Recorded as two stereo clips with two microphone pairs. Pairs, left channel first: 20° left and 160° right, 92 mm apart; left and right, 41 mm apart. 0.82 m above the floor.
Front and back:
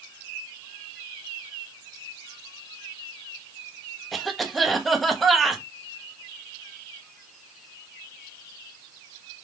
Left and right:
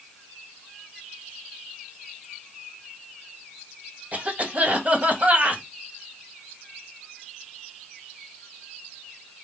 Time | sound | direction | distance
4.1 | a cough | 70° right | 1.2 m